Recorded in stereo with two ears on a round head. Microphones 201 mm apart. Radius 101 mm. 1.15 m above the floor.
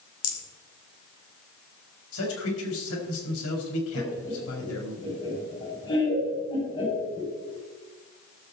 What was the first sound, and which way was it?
A rattle, 70° left (ahead or behind).